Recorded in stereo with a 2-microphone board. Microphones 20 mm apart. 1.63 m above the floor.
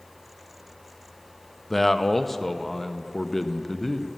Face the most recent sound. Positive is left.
turn(degrees=15)  # may be behind; listen again after turning